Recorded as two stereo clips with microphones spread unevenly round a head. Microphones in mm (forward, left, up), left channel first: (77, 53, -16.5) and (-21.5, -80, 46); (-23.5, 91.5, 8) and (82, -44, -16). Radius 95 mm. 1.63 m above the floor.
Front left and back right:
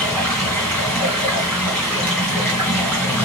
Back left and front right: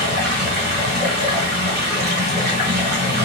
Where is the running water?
50° right, 2 m.